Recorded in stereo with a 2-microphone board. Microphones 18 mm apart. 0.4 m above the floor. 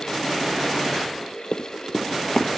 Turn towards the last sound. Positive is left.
turn(degrees=60)  # may be behind; listen again after turning